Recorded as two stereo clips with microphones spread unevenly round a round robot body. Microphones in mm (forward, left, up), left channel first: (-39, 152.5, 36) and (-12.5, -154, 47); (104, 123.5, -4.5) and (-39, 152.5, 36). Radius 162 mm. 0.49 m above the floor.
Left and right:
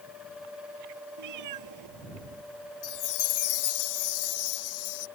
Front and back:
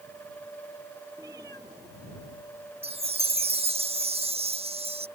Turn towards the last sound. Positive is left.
turn(degrees=120)